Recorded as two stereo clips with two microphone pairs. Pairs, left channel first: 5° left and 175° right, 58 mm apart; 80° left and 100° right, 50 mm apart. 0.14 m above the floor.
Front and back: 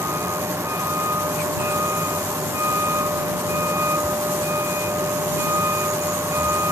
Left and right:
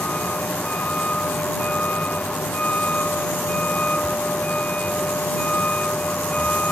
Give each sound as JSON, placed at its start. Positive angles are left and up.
{"t": 0.0, "sound": "a vehicle", "azimuth_deg": 145}